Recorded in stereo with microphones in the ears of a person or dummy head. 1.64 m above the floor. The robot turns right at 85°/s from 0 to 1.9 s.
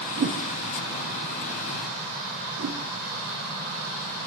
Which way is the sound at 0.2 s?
35° right (ahead or behind).